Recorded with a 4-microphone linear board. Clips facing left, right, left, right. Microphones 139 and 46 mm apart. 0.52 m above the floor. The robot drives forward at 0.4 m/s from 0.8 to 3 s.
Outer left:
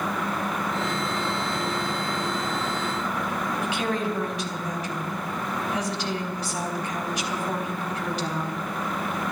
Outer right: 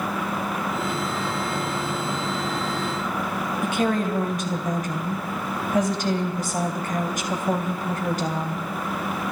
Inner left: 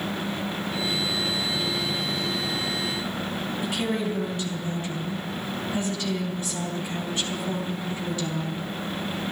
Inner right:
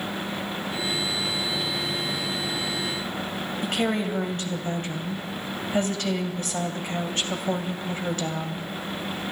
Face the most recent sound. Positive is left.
turn(degrees=-45)  # may be behind; listen again after turning